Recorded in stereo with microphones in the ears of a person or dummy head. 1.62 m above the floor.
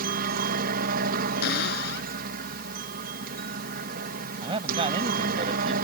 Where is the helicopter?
55° right (ahead or behind).